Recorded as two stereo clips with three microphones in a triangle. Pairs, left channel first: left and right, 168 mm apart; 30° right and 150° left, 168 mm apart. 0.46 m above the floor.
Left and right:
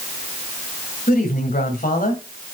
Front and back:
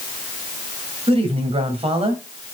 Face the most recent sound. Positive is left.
turn(degrees=100)